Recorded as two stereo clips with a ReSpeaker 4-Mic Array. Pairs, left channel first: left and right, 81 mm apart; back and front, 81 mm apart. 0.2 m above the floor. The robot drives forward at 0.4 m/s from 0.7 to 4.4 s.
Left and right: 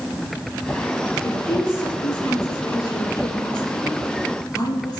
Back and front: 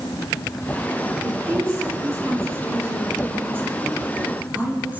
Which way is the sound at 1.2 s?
50° left.